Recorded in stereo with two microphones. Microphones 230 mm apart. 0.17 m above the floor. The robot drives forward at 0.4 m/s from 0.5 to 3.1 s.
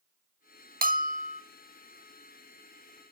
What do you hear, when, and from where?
0.8 s a bell: 40° right (ahead or behind), 0.6 m; by 1.4 s 30° right (ahead or behind), 0.7 m